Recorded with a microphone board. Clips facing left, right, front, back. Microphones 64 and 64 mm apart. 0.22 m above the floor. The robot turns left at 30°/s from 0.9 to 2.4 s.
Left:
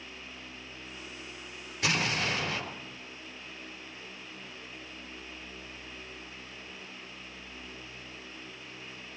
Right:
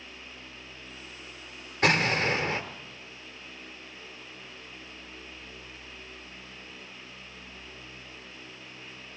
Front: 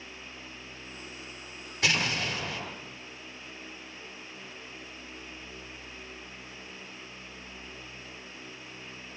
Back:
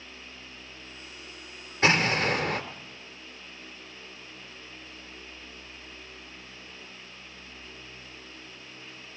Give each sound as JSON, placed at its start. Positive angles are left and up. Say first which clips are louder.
{"t": 1.8, "sound": "an explosion", "louder": "right 6 dB, back 6 dB", "azimuth_deg": -130, "distance_m": 3.0}